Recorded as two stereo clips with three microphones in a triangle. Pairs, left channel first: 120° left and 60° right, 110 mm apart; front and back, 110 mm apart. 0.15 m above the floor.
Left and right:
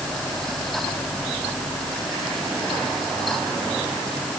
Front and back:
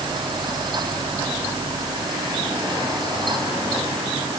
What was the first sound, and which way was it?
Only background noise.